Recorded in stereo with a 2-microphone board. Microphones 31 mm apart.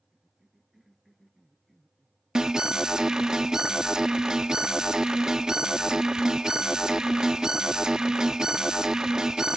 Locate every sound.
0.1 s a cough: centre (ahead or behind)
2.4 s an alarm: 20° right (ahead or behind)